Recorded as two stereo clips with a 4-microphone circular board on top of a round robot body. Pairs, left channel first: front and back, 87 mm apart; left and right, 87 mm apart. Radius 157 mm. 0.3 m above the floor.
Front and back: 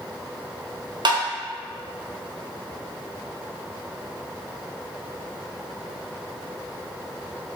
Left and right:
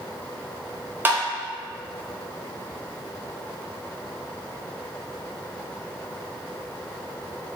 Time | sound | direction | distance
1.1 | tapping | 155° right | 0.9 m